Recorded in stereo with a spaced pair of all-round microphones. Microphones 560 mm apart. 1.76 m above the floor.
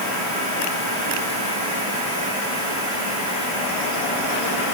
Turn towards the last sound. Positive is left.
No sound to turn to.